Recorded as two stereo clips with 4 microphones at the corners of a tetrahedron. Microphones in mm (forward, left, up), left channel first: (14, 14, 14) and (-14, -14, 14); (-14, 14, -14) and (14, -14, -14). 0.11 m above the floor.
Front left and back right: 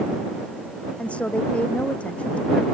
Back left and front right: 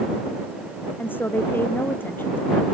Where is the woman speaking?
100° left.